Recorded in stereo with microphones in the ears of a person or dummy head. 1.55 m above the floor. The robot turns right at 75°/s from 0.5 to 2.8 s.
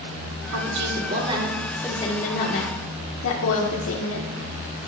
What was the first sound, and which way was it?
A woman speaking, 85° right.